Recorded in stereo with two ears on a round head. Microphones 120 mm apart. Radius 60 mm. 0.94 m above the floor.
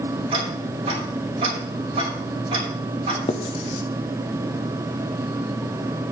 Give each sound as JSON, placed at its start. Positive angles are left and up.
{"t": 0.3, "sound": "ticking", "side_deg": -45, "distance_m": 2.5}
{"t": 3.3, "sound": "writing", "side_deg": 45, "distance_m": 0.6}